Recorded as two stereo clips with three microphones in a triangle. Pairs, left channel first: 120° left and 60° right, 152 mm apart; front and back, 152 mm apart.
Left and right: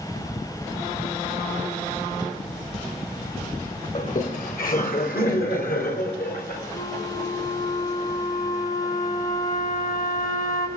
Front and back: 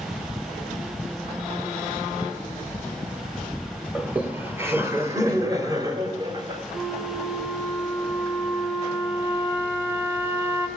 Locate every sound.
4.0 s laughter: 95° left, 2 m; by 6.6 s 120° left, 4 m
6.7 s a flute: 105° left, 3 m